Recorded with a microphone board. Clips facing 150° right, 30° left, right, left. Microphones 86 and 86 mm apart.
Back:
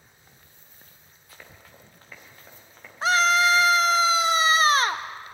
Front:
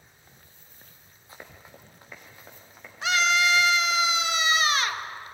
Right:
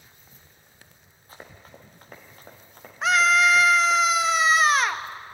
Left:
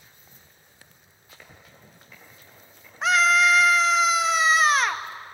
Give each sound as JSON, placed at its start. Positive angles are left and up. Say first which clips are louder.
{"t": 1.3, "sound": "running footsteps", "louder": "front 3 dB, right 5 dB", "azimuth_deg": -35, "distance_m": 3.5}
{"t": 3.0, "sound": "a scream", "louder": "back 4 dB, even", "azimuth_deg": 180, "distance_m": 1.0}